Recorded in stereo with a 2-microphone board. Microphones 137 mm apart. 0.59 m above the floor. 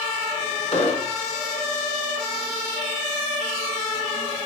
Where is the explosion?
45° left (ahead or behind), 5.5 m.